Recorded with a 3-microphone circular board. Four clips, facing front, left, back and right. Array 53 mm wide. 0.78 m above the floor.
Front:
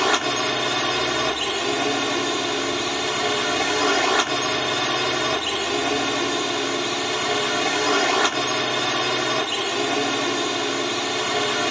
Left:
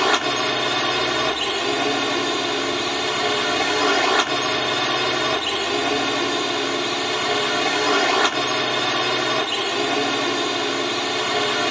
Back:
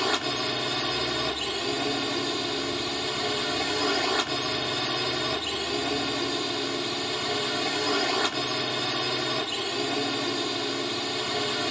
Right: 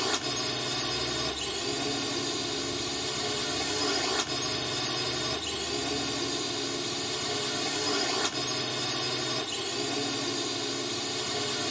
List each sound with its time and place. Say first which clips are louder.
0.0 s a drone: left 12 dB, front 7 dB; 60° left